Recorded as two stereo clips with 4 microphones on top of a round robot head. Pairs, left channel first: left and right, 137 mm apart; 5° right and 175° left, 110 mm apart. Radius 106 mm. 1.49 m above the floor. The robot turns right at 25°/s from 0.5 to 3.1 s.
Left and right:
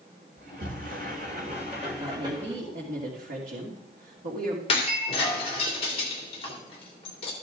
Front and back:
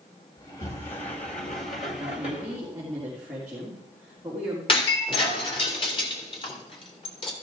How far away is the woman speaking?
About 2.5 m.